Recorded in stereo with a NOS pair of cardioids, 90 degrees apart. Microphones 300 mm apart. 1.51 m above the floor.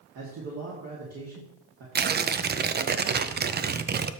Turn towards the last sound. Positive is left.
turn(degrees=-30)